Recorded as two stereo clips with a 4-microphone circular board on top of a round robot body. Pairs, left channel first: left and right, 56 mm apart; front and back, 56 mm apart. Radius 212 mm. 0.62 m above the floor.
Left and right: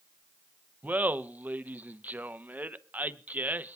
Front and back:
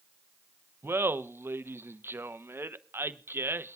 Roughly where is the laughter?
Behind right.